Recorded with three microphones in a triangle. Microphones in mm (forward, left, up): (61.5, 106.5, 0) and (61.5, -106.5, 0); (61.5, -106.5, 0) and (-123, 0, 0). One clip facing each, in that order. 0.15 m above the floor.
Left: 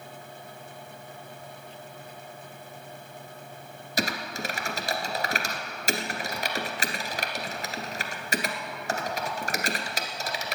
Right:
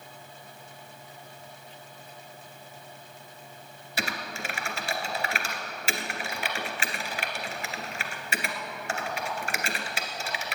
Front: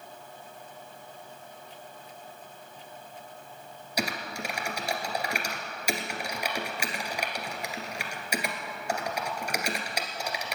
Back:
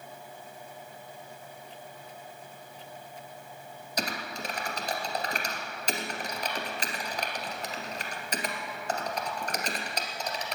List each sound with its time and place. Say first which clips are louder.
4.0 s typing on a keyboard: left 4 dB, front 2 dB; 45° left, 1.7 m